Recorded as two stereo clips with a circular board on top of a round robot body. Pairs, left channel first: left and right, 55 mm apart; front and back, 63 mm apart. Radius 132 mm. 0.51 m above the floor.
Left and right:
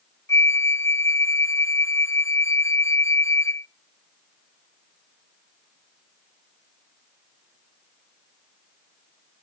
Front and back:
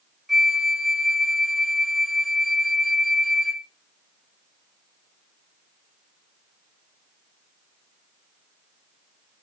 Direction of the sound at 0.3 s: 95° left.